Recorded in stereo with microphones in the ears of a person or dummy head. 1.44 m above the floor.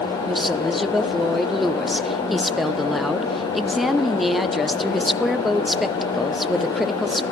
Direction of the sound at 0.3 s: 5° left (ahead or behind).